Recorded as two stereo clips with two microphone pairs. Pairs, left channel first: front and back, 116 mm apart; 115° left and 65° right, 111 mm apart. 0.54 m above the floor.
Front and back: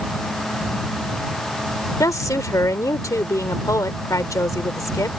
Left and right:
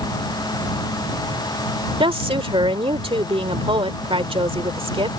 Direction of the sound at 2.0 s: 55° right.